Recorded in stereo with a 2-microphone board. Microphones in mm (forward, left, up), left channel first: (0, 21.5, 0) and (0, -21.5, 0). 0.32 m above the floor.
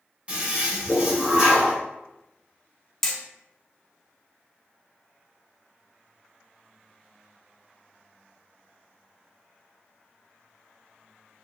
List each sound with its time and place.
0.3 s a toilet flushing: 30° right (ahead or behind), 1.1 m
3.0 s hammering: 10° left (ahead or behind), 0.6 m